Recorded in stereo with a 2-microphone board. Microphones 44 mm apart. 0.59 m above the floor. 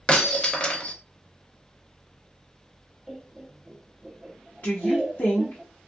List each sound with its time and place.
0.1 s breaking glass: 25° left (ahead or behind), 0.7 m
3.1 s laughter: 15° right (ahead or behind), 0.6 m
4.6 s a woman speaking: 40° left (ahead or behind), 1.1 m